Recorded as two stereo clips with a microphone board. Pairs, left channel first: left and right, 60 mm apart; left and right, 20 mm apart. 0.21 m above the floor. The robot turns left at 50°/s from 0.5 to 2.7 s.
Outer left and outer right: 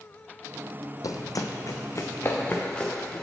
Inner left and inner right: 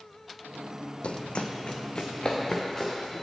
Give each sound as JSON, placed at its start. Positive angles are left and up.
{"t": 1.0, "sound": "running footsteps", "side_deg": 75, "distance_m": 0.5}